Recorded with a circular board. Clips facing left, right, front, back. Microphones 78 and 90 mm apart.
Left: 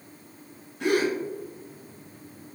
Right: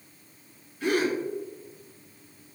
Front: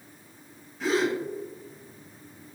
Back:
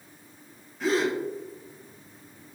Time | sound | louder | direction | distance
0.8 | a gasp | left 2 dB, even | 90° left | 0.8 m